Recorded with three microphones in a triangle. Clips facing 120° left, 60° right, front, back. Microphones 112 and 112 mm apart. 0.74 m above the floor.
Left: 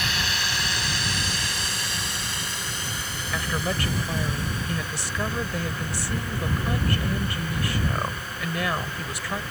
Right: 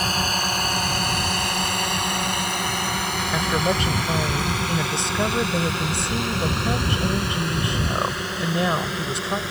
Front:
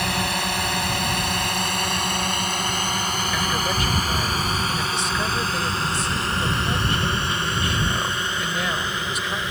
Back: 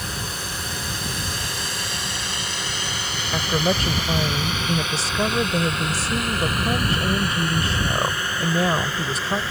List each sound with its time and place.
0.0 s a drone: 15° right; by 9.5 s 70° right
3.3 s a woman speaking: 125° right